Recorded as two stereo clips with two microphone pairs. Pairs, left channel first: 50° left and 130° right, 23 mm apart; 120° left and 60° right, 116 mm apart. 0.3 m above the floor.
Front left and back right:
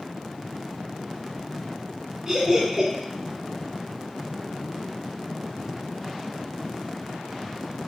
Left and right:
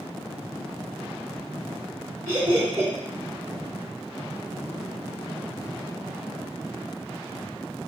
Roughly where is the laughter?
Right.